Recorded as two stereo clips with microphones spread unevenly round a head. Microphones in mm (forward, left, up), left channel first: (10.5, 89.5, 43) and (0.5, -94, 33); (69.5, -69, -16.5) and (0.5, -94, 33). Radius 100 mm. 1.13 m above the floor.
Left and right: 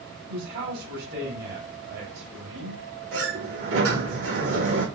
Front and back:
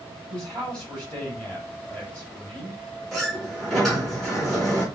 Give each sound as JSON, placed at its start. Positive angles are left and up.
{"t": 0.3, "sound": "a man speaking", "azimuth_deg": -60, "distance_m": 5.5}
{"t": 3.1, "sound": "a sliding door", "azimuth_deg": -75, "distance_m": 5.5}